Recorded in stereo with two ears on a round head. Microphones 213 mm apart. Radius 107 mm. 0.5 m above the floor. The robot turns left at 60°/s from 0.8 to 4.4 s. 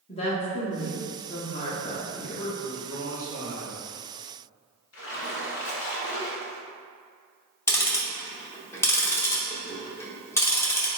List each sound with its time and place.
0.1 s a woman speaking: 25° left (ahead or behind), 0.7 m; by 2.5 s 5° right (ahead or behind), 0.7 m
2.2 s a man speaking: 75° left, 1.8 m; by 3.8 s 20° right, 1.8 m
4.9 s a splash: 70° left (ahead or behind), 1.0 m
7.7 s ticking: 10° left (ahead or behind), 0.5 m